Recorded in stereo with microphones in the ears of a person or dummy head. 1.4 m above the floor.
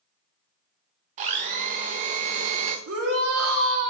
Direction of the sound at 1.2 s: 45° right (ahead or behind).